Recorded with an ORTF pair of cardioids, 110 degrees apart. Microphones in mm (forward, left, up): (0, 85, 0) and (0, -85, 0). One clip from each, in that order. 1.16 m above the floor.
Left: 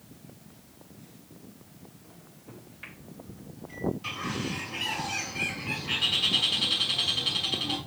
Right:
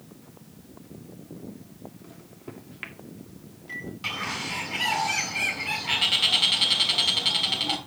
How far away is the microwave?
About 1.9 m.